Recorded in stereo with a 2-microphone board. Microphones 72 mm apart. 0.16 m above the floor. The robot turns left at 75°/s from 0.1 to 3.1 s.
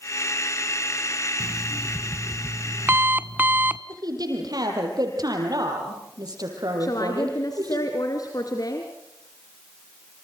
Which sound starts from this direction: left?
A woman speaking, at 6.8 s.